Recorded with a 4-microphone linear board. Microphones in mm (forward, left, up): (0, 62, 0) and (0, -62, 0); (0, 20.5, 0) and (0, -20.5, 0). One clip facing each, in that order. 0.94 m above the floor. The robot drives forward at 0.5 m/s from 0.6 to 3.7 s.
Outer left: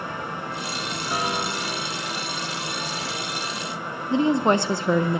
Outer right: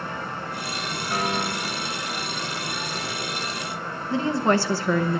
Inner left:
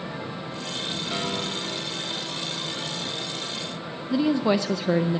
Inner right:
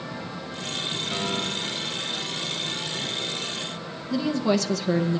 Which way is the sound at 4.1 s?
20° left (ahead or behind).